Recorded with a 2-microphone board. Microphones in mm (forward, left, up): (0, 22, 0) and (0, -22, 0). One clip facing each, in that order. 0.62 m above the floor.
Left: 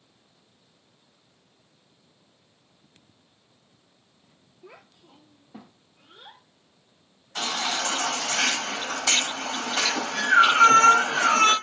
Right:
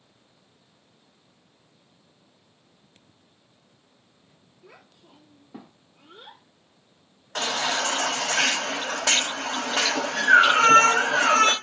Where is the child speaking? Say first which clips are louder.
Left 2 dB; 15° left (ahead or behind), 0.5 m; by 8.1 s 50° right (ahead or behind), 2 m.